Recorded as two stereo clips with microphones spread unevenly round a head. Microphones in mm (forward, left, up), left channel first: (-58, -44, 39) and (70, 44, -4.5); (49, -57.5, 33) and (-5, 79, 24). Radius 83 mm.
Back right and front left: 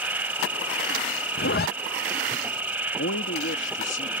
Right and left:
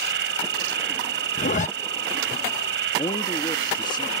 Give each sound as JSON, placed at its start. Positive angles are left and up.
{"t": 0.0, "sound": "an insect", "azimuth_deg": 115}
{"t": 1.4, "sound": "a zipper", "azimuth_deg": -110}
{"t": 3.0, "sound": "a man speaking", "azimuth_deg": -130}